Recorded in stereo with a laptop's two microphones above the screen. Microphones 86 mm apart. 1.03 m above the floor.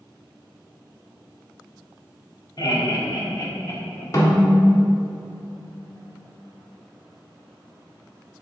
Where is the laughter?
50° left (ahead or behind), 1.9 m; by 4.0 s 30° left (ahead or behind), 1.7 m.